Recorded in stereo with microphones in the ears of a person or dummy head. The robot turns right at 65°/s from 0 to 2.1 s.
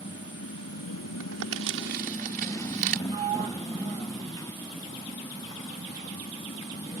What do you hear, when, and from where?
0.0 s a motorcycle: 30° left (ahead or behind); by 7.0 s 20° left (ahead or behind)
1.2 s crumpling: 75° right (ahead or behind); by 3.0 s 45° right (ahead or behind)
3.1 s a sliding door: 35° right (ahead or behind)